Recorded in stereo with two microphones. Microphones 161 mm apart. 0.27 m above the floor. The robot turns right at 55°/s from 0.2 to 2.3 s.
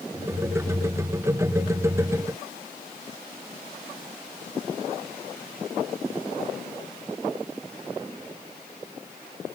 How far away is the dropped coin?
No dropped coin in this recording.